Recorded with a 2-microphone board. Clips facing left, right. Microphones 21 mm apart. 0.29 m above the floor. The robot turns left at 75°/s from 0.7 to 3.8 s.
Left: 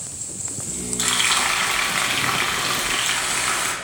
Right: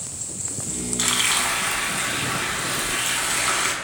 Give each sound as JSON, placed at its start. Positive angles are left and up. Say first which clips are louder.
{"t": 1.0, "sound": "frying", "louder": "left 2 dB", "azimuth_deg": -175, "distance_m": 0.7}